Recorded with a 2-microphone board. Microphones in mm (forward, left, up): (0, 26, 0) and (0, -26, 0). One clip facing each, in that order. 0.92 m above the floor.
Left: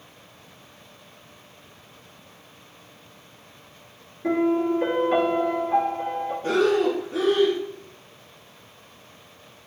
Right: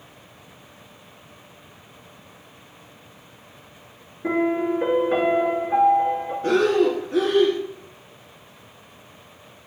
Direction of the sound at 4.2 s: 15° right (ahead or behind).